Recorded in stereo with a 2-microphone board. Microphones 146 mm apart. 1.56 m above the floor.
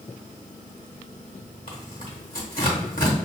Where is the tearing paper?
75° left (ahead or behind), 1.5 m.